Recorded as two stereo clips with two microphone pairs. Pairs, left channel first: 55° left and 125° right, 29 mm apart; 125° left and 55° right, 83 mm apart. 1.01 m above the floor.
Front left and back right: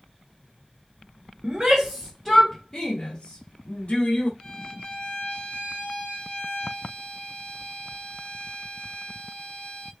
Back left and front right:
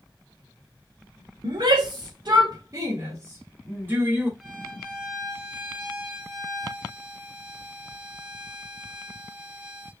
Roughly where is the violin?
Ahead left.